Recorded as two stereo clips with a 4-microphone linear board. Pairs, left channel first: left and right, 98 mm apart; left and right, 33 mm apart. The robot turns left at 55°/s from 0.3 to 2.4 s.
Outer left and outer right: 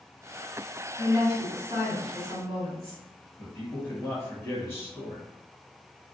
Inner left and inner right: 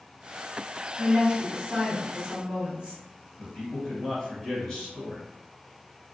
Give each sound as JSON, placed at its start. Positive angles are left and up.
{"t": 1.0, "sound": "a woman speaking", "azimuth_deg": -25, "distance_m": 1.9}
{"t": 3.4, "sound": "a man speaking", "side_deg": 20, "distance_m": 1.2}